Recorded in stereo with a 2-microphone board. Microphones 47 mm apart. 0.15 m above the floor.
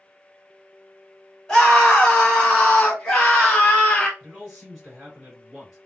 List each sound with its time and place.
1.5 s a scream: 15° left (ahead or behind), 1.3 m; by 4.1 s 10° left (ahead or behind), 1.2 m
4.2 s a man speaking: centre (ahead or behind), 1.9 m